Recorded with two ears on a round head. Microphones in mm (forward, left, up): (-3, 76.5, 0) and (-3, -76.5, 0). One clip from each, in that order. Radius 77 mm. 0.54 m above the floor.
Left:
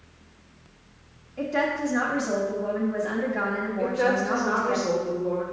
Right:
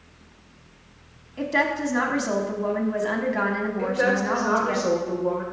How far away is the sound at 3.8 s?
About 2 m.